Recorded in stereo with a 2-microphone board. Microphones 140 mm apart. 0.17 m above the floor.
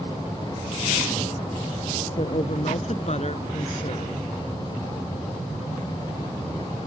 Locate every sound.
2.2 s a woman speaking: 55° left (ahead or behind)